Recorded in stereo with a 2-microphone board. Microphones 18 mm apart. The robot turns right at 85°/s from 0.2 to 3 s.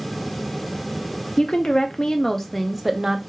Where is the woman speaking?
70° left, 0.5 m; by 3.2 s 150° right, 0.5 m.